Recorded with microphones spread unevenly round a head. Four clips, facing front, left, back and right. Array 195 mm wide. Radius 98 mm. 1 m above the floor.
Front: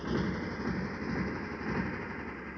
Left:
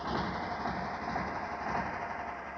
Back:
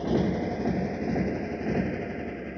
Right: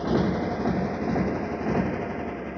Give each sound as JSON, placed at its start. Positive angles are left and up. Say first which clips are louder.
{"t": 0.0, "sound": "a motorcycle", "louder": "right 10 dB, back 8 dB", "azimuth_deg": -145}